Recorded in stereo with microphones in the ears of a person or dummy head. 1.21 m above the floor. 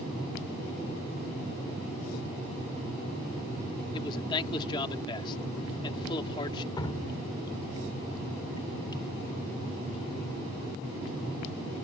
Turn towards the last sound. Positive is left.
turn(degrees=20)  # may be behind; listen again after turning